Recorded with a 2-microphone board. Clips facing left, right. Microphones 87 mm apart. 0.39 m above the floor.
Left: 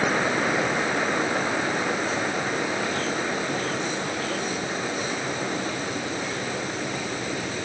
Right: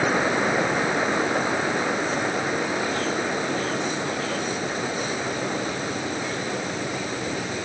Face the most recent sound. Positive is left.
No sound to turn to.